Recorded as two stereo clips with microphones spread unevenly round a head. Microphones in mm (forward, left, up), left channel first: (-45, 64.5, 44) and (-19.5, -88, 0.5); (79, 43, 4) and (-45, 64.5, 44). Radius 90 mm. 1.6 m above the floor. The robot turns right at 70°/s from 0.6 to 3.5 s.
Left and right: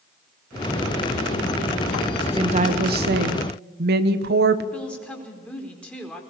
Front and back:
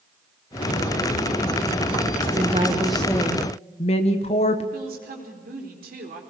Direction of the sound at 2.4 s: 140° right.